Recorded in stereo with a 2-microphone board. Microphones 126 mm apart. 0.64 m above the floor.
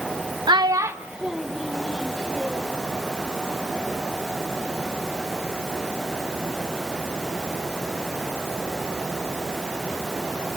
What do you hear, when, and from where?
0.5 s a child speaking: 35° right (ahead or behind), 0.6 m; by 2.7 s 10° left (ahead or behind), 2.5 m